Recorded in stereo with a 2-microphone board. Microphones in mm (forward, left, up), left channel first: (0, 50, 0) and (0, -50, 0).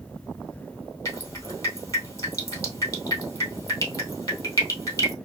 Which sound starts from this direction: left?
Dripping, at 1.1 s.